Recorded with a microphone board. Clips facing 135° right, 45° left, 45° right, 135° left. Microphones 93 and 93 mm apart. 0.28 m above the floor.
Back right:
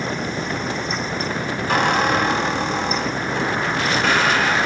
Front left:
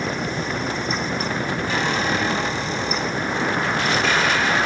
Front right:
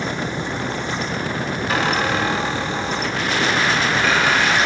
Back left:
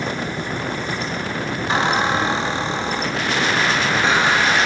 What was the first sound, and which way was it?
A squeak, 160° right.